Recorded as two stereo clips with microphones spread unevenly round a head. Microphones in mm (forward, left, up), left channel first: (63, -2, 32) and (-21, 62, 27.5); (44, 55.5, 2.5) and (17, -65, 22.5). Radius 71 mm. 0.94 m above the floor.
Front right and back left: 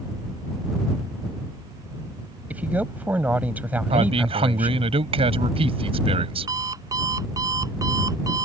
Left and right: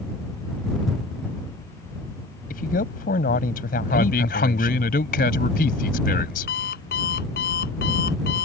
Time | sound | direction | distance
2.5 | a man speaking | 65° left | ?
3.9 | a man speaking | 110° left | ?
6.5 | an alarm clock | 85° left | ?